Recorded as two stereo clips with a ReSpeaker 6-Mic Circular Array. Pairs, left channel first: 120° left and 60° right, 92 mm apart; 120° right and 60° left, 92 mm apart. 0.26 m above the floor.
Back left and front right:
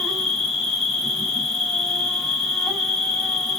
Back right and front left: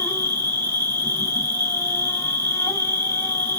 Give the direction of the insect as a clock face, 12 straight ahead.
5 o'clock.